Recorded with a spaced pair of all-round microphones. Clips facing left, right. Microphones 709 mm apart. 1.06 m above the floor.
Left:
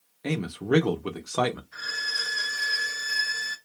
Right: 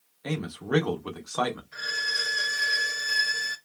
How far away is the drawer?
I don't hear a drawer.